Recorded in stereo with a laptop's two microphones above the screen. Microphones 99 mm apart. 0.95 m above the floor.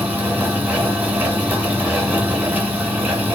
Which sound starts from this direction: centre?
A fan, at 0.0 s.